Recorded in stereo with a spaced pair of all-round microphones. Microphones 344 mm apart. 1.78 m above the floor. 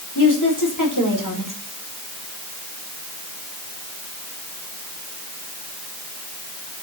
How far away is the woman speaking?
About 5 m.